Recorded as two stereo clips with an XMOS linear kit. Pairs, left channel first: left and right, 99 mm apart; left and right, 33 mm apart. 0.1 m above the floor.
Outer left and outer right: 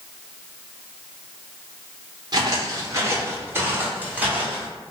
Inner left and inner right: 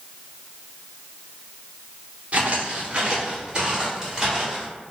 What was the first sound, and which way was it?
Footsteps, 45° right (ahead or behind).